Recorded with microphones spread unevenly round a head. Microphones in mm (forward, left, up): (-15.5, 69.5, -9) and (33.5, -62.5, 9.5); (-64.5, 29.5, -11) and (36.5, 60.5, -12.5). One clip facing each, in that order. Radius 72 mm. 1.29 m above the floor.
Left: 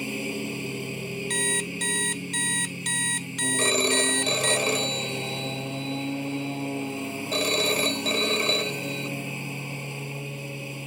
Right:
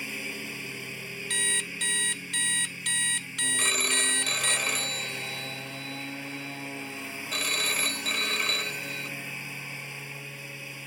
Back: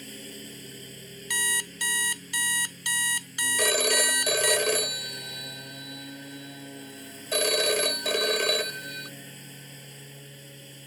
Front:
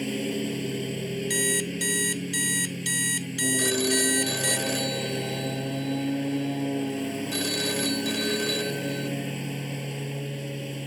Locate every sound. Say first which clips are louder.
0.0 s a lawn mower: left 9 dB, front 15 dB; 40° left
1.3 s an alarm clock: left 8 dB, front 8 dB; 165° left
3.6 s a phone ringing: left 10 dB, even; 175° left